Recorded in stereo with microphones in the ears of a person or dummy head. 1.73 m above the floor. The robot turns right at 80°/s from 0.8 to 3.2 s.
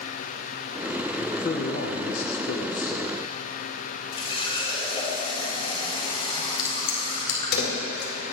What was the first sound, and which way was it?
A man speaking, 5° left.